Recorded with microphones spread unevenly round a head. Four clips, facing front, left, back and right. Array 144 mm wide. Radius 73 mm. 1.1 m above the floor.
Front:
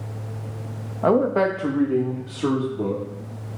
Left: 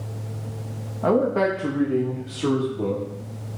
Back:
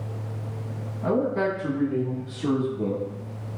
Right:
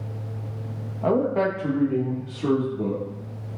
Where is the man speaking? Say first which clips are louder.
Left 2 dB, front 5 dB; 5° left, 1.4 m.